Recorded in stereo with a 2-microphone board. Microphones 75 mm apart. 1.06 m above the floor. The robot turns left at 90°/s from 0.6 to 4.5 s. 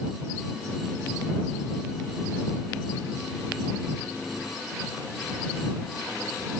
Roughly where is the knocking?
I don't hear knocking.